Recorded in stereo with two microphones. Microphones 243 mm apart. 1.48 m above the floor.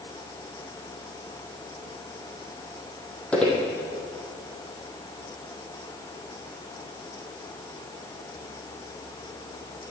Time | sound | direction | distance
3.3 | footsteps | 5° left (ahead or behind) | 3 m